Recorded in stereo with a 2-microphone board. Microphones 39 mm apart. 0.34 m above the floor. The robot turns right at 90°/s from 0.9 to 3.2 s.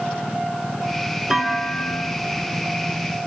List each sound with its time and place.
1.3 s a clunk: 15° right, 0.9 m; by 2.2 s 65° left, 0.9 m